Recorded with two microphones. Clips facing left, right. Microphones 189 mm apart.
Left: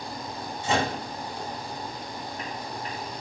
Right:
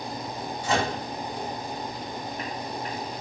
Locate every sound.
0.6 s a microwave: 25° left (ahead or behind), 1.1 m